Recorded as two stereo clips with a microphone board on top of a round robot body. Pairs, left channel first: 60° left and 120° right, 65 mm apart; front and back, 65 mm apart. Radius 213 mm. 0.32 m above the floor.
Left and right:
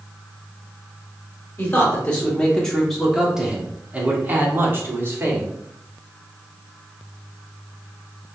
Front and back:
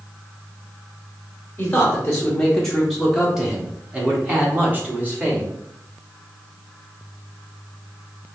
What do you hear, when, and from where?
1.6 s a man speaking: 50° left, 1.6 m; by 5.5 s 135° right, 1.9 m